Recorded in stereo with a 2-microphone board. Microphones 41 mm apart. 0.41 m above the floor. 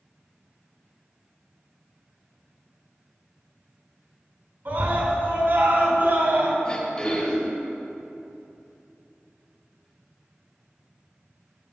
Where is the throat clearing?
25° left (ahead or behind), 1.8 m.